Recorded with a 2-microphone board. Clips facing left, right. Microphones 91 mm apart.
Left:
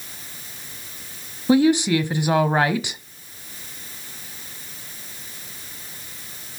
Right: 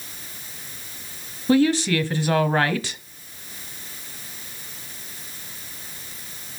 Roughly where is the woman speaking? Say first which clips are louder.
Left 2 dB; centre.